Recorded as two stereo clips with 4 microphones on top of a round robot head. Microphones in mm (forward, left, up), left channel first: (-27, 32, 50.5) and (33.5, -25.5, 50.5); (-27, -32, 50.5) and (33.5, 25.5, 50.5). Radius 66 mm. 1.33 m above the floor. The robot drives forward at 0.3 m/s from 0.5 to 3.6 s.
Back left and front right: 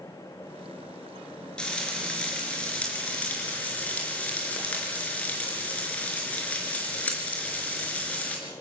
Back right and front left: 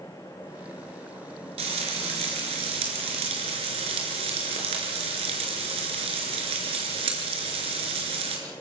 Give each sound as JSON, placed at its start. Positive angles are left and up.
{"t": 1.6, "sound": "frying", "azimuth_deg": 55, "distance_m": 5.0}